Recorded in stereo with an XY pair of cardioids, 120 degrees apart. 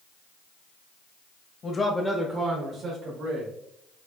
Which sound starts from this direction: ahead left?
A man speaking, at 1.6 s.